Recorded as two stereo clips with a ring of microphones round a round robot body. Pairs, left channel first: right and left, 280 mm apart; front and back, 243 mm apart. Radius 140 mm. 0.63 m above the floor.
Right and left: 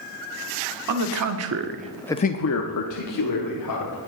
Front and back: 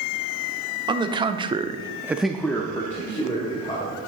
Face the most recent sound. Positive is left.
turn(degrees=-75)